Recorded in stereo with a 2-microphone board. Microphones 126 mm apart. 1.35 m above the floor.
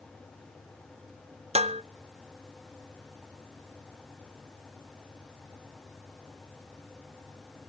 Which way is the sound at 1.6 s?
55° right (ahead or behind).